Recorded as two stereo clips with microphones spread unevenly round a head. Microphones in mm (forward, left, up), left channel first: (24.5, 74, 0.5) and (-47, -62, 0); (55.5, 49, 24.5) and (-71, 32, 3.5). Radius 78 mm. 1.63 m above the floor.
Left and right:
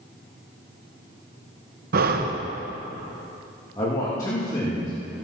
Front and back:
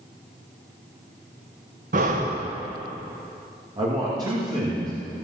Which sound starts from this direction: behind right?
Breathing, at 1.9 s.